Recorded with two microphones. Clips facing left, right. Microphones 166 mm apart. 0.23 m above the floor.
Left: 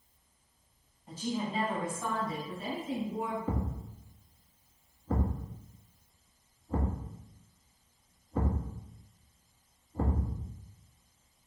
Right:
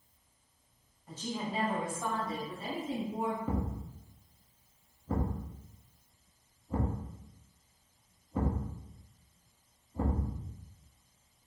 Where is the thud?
10° right (ahead or behind), 1.8 m.